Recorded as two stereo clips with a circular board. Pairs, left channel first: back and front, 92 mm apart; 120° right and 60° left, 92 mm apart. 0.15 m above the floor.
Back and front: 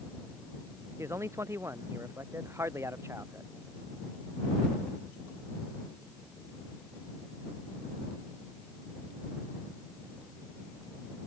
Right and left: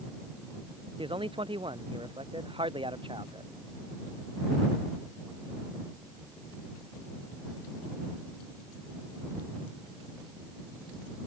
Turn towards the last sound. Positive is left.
turn(degrees=60)